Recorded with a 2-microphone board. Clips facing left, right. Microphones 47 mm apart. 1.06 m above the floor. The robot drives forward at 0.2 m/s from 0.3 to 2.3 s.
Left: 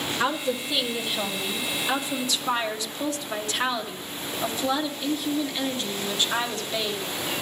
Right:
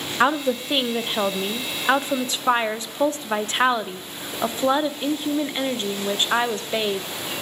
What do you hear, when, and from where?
0.2 s a woman speaking: 35° right (ahead or behind), 0.5 m